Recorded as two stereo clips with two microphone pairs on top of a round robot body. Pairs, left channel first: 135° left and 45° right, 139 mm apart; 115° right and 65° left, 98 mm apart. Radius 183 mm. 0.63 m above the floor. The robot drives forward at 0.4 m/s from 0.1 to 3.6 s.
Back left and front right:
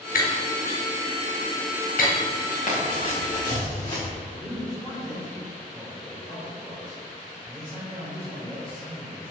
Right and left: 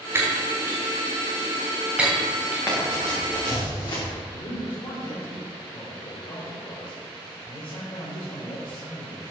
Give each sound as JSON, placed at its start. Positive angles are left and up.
{"t": 0.1, "sound": "breaking glass", "azimuth_deg": 135, "distance_m": 1.8}
{"t": 2.7, "sound": "running footsteps", "azimuth_deg": 175, "distance_m": 3.5}
{"t": 4.3, "sound": "a man speaking", "azimuth_deg": -155, "distance_m": 3.5}